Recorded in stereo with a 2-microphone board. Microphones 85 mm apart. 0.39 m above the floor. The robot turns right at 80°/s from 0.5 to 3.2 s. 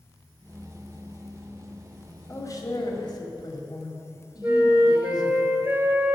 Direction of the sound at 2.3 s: 40° left.